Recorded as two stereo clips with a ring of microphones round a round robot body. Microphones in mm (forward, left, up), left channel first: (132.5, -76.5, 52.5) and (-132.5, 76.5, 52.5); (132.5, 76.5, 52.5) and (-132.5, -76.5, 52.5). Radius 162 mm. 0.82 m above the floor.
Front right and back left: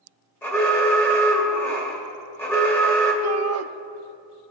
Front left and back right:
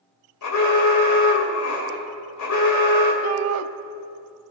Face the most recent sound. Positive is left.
turn(degrees=180)